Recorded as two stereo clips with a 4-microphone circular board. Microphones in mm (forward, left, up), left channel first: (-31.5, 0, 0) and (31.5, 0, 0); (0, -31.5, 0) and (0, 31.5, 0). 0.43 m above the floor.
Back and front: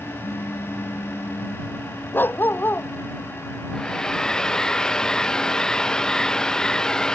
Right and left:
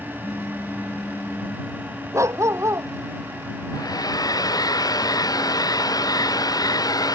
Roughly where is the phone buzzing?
Behind right.